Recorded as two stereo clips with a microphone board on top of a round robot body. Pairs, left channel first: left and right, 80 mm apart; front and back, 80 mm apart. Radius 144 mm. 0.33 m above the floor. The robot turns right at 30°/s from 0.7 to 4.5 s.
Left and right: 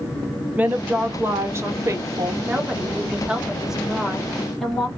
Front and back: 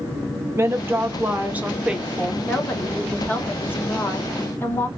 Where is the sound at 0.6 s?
145° right, 1.0 m; by 2.4 s 95° right, 1.0 m.